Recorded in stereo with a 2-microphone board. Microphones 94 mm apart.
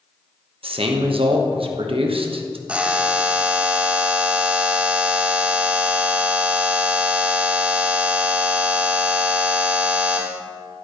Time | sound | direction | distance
0.6 | a man speaking | 80° right | 0.9 m
2.7 | a buzzer | 10° right (ahead or behind) | 0.6 m